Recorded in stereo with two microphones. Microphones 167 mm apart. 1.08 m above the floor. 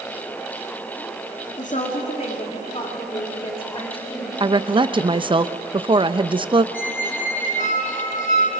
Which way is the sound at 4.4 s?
30° right (ahead or behind).